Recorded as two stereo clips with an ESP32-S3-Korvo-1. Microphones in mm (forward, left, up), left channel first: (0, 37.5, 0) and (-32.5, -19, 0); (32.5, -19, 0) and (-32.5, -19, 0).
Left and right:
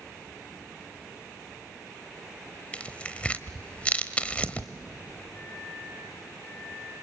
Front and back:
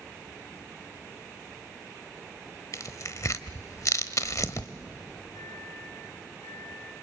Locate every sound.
2.7 s tearing paper: 5° right, 1.1 m
5.3 s a microwave: 5° right, 3 m